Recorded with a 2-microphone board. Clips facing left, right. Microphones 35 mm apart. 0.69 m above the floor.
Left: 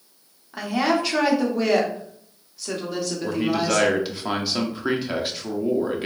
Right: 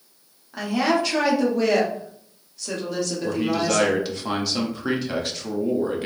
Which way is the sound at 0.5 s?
10° left (ahead or behind).